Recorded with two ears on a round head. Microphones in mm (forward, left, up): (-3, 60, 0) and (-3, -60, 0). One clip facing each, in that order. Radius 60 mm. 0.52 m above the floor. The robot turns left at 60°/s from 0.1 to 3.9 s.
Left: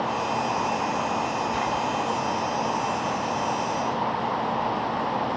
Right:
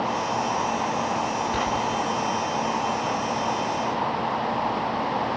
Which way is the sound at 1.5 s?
70° right.